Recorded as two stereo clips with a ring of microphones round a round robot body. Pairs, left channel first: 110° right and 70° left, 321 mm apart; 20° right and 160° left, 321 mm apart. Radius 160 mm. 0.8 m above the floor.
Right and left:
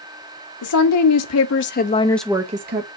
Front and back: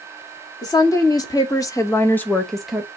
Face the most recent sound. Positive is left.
turn(degrees=70)